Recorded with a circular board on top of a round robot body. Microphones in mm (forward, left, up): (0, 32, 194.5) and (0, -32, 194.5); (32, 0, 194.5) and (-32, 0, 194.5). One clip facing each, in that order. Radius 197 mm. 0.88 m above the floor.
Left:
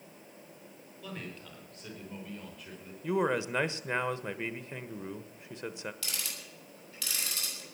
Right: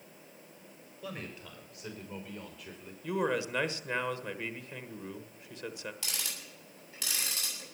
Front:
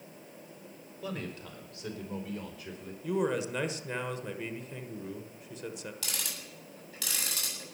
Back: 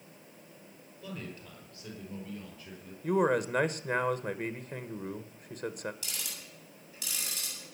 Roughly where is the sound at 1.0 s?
Ahead.